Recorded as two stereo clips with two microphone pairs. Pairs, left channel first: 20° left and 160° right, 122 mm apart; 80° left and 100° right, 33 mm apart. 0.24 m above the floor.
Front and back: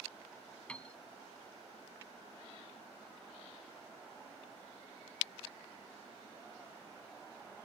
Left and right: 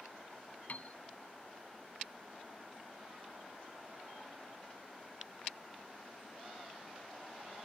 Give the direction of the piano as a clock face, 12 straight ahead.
9 o'clock.